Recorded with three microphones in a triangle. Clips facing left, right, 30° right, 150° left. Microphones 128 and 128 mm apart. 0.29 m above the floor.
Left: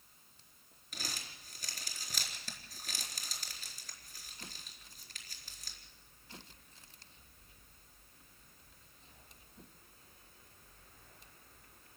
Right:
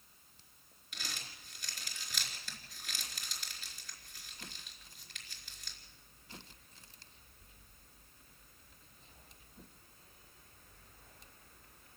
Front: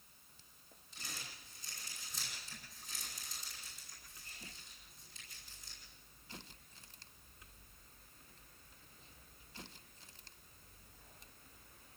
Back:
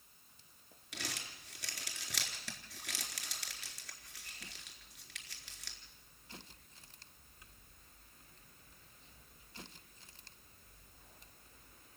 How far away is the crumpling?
About 4 m.